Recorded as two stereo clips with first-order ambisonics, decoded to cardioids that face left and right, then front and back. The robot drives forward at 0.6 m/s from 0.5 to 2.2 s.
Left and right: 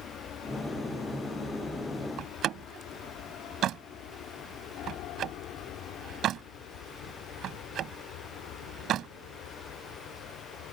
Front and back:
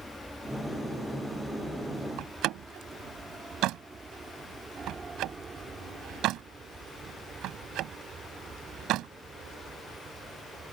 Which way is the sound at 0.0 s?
95° left.